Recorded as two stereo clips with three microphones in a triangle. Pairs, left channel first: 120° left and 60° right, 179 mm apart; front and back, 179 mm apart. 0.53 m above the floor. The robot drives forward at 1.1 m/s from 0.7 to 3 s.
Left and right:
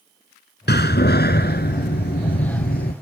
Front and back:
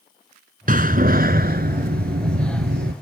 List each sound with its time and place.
0.7 s a door slam: 140° left; by 2.9 s 155° left